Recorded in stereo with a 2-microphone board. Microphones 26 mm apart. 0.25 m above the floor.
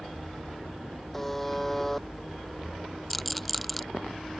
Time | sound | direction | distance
1.1 | a buzzer | 10° left (ahead or behind) | ?
3.1 | a rattle | centre (ahead or behind) | ?